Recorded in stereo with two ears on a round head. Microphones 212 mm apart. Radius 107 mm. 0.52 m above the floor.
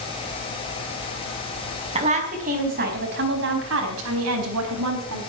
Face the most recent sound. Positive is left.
turn(degrees=-75)  # may be behind; listen again after turning